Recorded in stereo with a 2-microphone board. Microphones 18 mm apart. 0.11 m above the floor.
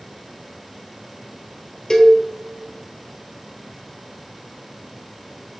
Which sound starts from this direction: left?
A cowbell, at 1.9 s.